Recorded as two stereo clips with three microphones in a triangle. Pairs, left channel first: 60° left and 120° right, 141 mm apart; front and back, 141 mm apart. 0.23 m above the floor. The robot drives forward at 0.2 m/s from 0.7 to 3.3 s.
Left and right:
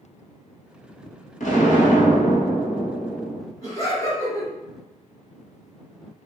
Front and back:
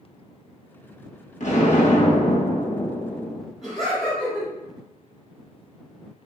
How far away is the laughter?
About 1.5 m.